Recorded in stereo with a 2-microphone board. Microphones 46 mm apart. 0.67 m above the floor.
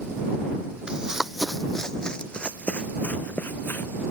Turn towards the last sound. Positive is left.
turn(degrees=45)  # may be behind; listen again after turning